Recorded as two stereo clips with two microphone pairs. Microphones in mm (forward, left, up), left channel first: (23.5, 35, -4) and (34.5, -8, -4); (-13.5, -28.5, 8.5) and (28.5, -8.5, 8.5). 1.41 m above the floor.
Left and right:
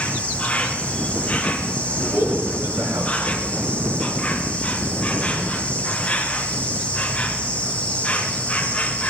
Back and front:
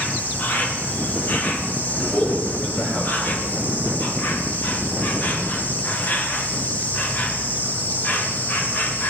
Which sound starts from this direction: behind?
An insect, at 0.0 s.